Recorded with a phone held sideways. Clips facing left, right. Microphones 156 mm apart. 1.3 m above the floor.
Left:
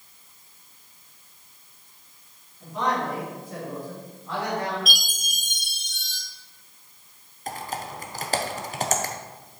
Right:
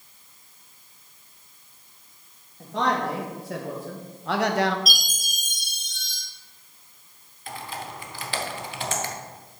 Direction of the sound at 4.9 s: 35° right (ahead or behind).